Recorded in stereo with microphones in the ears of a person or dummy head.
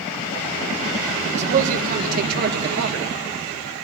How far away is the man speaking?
About 2 m.